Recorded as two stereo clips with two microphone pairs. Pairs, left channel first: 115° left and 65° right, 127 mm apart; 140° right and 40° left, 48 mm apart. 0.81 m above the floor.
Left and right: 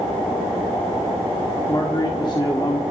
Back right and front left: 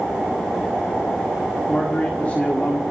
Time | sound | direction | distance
1.7 | a man speaking | 170° left | 1.8 m